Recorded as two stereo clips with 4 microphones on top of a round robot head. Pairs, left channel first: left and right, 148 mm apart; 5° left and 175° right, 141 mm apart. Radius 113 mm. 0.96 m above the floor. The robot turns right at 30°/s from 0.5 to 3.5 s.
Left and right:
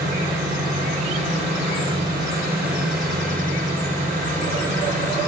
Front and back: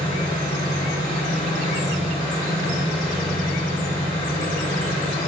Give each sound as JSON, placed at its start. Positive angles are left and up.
{"t": 0.0, "sound": "an engine running", "azimuth_deg": -160, "distance_m": 2.5}